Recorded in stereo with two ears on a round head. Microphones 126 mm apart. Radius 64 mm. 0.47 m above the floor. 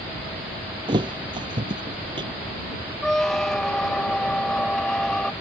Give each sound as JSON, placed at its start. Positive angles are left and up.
{"t": 0.9, "sound": "a thud", "side_deg": -35}
{"t": 3.0, "sound": "a squeak", "side_deg": 5}